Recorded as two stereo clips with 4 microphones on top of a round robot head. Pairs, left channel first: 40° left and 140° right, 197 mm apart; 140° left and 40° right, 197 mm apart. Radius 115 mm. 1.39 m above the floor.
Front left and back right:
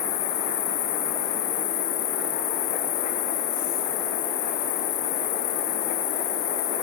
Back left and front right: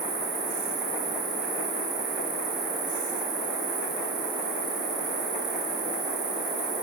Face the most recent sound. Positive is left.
turn(degrees=20)